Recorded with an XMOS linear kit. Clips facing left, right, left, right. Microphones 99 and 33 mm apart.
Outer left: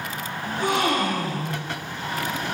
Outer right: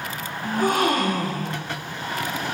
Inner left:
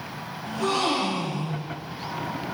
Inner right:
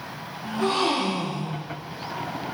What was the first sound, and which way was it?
A gasp, 45° right (ahead or behind).